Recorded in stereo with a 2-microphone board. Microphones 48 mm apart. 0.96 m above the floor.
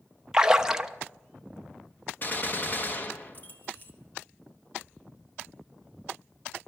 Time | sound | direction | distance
0.3 | a splash | 15° right (ahead or behind) | 0.6 m
2.2 | a gunshot | 40° left (ahead or behind) | 1.2 m